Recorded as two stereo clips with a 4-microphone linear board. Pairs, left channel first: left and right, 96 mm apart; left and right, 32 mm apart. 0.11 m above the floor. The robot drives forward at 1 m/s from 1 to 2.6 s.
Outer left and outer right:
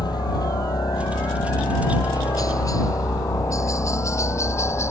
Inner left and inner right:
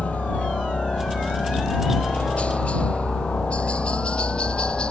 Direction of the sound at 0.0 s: 45° left (ahead or behind).